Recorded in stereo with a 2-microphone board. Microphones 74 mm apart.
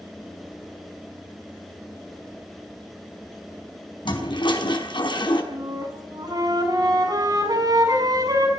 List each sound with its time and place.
4.0 s a toilet flushing: 80° left, 5 m
5.5 s a flute: 55° right (ahead or behind), 6 m